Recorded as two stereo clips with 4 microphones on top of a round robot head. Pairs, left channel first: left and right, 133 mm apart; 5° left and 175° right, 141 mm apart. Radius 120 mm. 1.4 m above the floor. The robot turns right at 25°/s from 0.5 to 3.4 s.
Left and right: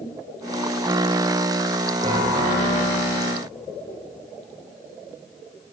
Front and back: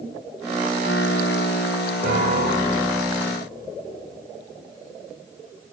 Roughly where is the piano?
Behind right.